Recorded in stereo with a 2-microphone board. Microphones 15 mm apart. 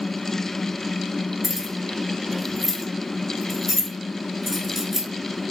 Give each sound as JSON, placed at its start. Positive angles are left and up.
{"t": 1.4, "sound": "keys jangling", "side_deg": -5, "distance_m": 1.3}